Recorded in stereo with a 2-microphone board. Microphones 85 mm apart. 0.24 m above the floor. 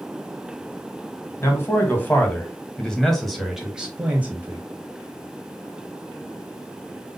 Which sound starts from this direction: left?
A man speaking, at 1.4 s.